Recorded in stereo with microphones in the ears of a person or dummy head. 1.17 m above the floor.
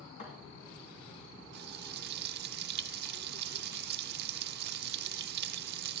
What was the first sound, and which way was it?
A thud, 30° left (ahead or behind).